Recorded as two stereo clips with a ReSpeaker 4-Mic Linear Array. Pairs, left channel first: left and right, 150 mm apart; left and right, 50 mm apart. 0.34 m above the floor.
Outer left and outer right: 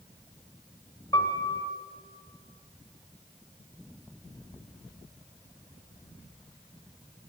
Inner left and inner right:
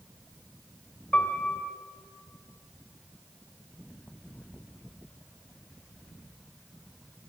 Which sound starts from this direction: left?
A piano, at 1.1 s.